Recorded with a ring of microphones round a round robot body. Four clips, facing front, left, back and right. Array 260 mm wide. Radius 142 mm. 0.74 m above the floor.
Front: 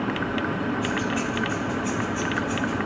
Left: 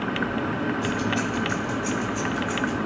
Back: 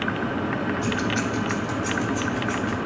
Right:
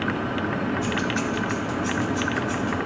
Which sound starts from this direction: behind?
Keys jangling, at 0.8 s.